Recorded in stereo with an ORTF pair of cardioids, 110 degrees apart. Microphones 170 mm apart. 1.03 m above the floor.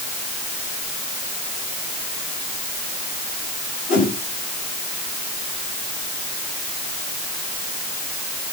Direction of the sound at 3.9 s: 55° left.